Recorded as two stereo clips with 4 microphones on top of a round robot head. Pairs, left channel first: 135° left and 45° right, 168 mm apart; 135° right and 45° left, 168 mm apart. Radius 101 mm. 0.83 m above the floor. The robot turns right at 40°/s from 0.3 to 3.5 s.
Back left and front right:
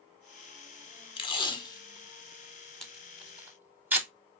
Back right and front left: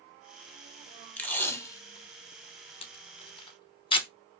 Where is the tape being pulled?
150° left, 1.0 m; by 4.1 s 115° right, 1.0 m.